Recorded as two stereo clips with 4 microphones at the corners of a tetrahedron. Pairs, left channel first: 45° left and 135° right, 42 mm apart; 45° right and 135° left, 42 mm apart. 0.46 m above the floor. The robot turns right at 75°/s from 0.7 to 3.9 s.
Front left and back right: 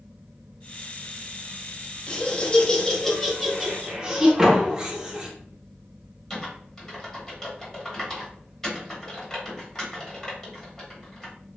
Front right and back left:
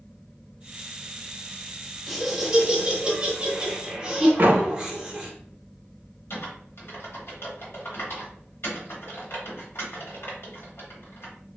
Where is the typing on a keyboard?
30° right, 1.0 m.